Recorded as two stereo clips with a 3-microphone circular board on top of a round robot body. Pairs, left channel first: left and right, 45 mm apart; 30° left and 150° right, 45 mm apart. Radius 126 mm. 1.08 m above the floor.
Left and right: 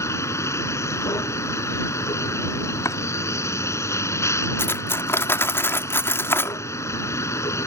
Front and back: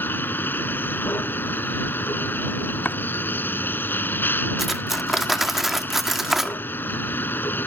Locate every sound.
0.0 s a vehicle: 80° left
2.9 s chopping: 85° left
4.6 s cutlery clinking: 125° left